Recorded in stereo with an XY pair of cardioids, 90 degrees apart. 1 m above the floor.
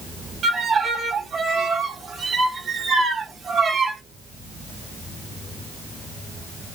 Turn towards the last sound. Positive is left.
turn(degrees=-55)